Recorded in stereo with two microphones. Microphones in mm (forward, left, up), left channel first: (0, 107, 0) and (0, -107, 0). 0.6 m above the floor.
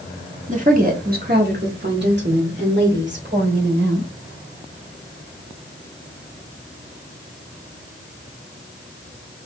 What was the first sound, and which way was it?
A woman speaking, 35° right (ahead or behind).